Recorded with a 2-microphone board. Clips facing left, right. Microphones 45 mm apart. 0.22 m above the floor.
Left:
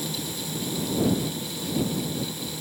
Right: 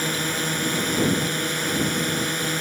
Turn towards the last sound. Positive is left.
turn(degrees=-65)  # may be behind; listen again after turning